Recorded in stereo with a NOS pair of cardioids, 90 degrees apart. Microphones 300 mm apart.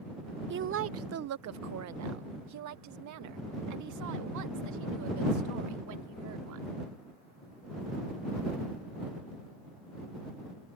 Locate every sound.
0.5 s a woman speaking: 40° right; by 6.8 s 80° right